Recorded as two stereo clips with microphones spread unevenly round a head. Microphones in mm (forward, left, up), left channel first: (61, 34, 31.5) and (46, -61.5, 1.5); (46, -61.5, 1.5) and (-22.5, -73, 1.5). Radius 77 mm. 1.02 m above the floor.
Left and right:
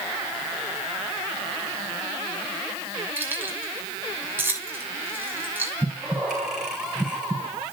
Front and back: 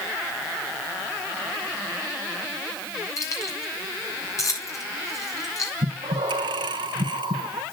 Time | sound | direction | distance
3.2 | keys jangling | 30° right | 7.5 m
5.8 | breathing | 175° left | 2.5 m